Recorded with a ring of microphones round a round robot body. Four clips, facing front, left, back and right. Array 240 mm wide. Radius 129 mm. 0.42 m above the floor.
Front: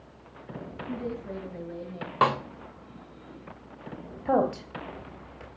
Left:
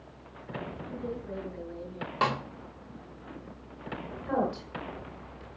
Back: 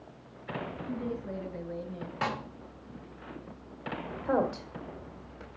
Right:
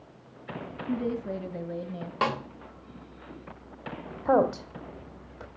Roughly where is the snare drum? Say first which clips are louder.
Even, front 10 dB; ahead.